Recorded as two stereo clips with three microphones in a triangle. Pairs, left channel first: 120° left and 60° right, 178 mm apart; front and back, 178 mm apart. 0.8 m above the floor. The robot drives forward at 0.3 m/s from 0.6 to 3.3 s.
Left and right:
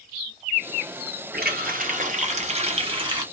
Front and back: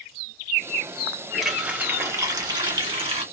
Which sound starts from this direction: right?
A running tap, at 1.3 s.